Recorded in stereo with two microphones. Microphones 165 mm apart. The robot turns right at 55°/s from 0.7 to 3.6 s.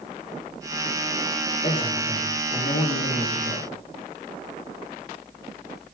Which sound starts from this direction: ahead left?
A man speaking, at 1.6 s.